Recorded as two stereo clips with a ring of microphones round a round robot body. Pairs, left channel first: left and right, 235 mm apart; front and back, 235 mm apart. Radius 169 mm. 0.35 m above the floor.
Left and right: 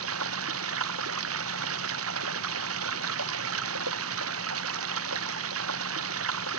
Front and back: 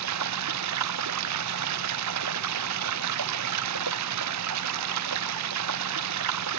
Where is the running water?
140° right.